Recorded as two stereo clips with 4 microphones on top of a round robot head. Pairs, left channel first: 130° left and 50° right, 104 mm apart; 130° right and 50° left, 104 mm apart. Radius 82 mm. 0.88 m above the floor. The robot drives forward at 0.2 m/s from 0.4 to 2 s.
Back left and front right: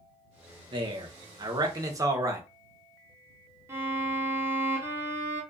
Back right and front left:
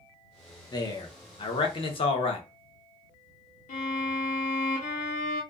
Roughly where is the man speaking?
Right.